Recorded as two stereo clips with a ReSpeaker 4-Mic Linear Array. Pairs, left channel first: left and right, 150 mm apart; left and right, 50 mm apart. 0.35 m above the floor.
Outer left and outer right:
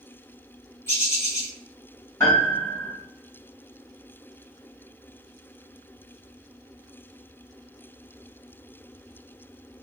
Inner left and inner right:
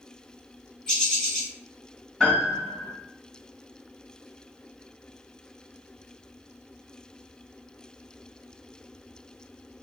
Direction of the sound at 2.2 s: 20° left (ahead or behind).